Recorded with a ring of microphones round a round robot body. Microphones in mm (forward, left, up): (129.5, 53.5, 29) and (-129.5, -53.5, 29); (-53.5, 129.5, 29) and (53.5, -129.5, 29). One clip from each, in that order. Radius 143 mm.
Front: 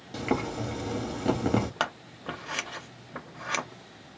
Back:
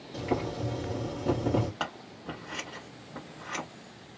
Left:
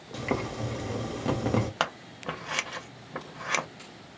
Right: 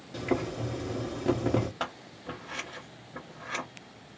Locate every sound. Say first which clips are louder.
0.1 s boiling: front 2 dB, even; 45° left, 1.2 m
1.8 s scissors: front 4 dB, left 6 dB; 75° left, 0.7 m